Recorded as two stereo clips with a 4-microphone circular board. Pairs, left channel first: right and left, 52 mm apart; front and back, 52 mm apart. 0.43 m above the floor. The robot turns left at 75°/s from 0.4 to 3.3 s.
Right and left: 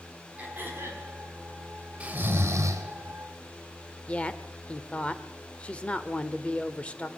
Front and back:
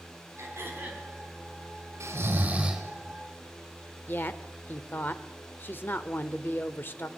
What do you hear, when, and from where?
0.4 s throat clearing: 160° left, 4.5 m; by 1.1 s 110° left, 4.5 m
2.0 s snoring: 155° left, 2 m; by 2.8 s 90° left, 2 m
4.1 s a woman speaking: 30° right, 1.0 m